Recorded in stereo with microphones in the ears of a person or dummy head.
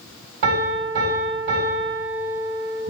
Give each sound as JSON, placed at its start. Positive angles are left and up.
{"t": 0.4, "sound": "a piano", "side_deg": -55, "distance_m": 2.0}